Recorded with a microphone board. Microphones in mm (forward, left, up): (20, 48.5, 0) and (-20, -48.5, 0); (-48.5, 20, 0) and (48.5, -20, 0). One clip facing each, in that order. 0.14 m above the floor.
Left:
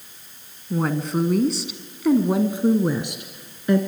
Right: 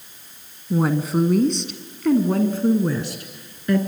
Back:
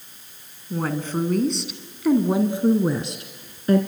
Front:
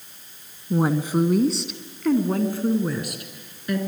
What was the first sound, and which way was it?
A woman speaking, 40° right.